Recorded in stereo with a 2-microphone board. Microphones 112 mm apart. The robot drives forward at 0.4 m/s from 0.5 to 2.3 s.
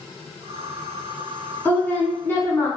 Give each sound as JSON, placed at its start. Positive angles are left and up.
{"t": 1.6, "sound": "a woman speaking", "side_deg": 20, "distance_m": 1.1}